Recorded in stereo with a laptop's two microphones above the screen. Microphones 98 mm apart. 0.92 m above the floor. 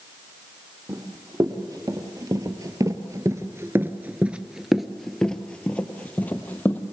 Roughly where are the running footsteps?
Right.